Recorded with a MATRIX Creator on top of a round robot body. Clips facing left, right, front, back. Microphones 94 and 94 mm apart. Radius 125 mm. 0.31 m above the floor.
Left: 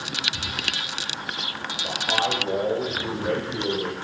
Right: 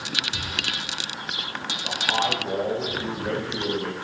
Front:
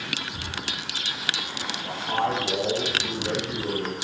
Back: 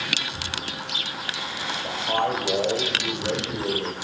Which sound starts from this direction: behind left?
A man speaking, at 1.8 s.